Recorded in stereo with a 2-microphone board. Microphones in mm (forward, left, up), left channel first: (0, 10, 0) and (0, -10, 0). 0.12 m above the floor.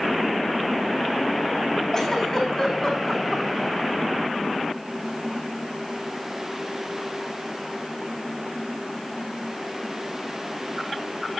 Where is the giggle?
20° left (ahead or behind), 3.5 m.